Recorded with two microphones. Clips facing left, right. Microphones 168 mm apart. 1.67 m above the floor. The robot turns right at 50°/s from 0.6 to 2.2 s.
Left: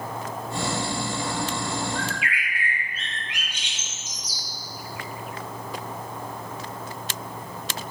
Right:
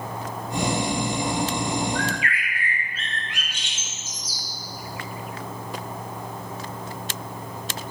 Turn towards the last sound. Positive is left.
turn(degrees=15)  # may be behind; listen again after turning